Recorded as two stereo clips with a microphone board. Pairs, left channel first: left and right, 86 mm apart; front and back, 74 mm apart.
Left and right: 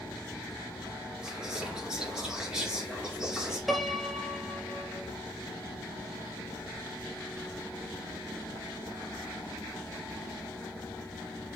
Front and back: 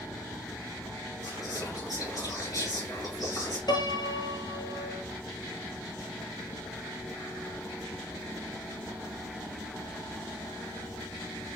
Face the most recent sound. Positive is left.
turn(degrees=0)